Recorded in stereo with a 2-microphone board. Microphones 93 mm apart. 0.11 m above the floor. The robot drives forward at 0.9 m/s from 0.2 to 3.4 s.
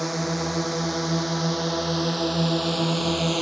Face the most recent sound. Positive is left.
turn(degrees=0)  # may be behind; listen again after turning